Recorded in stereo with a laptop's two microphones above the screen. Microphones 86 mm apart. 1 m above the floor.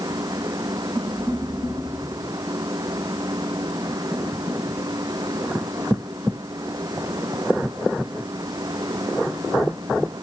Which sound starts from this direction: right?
A fan, at 0.0 s.